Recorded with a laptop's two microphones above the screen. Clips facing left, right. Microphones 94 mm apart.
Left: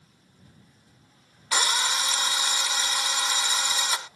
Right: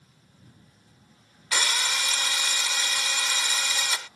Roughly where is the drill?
Left.